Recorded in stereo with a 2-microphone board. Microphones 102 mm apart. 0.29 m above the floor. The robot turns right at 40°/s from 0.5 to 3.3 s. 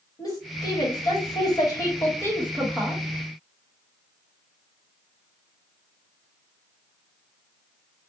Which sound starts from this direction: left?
A woman speaking, at 0.2 s.